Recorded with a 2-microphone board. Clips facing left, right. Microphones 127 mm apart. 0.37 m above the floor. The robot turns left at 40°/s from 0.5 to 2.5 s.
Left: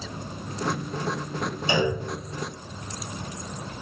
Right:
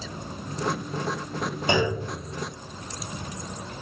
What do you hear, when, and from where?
1.7 s a clunk: 55° right (ahead or behind), 5.5 m; by 2.0 s 40° right (ahead or behind), 5.5 m